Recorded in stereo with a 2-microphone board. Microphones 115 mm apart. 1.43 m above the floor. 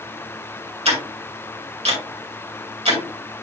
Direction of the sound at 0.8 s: 65° right (ahead or behind).